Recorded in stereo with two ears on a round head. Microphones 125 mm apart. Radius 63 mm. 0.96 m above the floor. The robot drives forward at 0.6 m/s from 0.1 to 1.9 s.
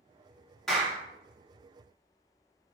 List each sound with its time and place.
0.7 s a clap: 5° left (ahead or behind), 0.9 m